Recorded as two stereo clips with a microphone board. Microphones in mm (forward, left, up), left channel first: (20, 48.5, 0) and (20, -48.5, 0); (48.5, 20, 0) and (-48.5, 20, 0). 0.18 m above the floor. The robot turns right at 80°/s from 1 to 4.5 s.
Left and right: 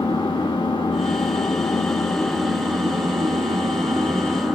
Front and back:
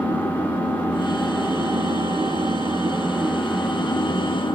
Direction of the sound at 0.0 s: 70° left.